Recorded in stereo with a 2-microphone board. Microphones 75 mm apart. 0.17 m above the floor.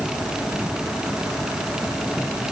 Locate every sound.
Only background noise.